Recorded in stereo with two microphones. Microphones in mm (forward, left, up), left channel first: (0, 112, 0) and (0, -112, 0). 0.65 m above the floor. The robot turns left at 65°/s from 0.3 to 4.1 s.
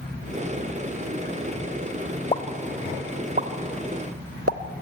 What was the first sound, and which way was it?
A pop, 25° left (ahead or behind).